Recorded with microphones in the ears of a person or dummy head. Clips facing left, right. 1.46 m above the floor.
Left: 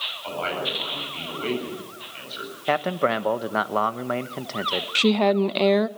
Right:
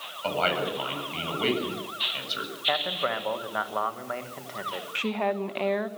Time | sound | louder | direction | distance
0.2 | a man speaking | right 2 dB | 65° right (ahead or behind) | 8 m
2.7 | a man speaking | left 7 dB | 60° left (ahead or behind) | 1.1 m
5.0 | a woman speaking | left 9 dB | 60° left (ahead or behind) | 0.8 m